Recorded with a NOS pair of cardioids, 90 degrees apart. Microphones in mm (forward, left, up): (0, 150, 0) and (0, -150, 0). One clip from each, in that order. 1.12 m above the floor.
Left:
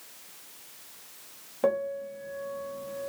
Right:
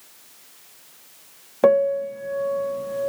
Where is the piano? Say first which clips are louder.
Right 11 dB; 50° right, 1.0 m.